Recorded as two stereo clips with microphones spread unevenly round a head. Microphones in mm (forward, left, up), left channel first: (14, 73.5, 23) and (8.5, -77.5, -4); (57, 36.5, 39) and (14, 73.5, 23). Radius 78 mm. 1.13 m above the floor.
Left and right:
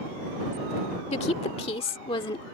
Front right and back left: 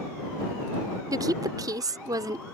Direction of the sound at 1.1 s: 140° left.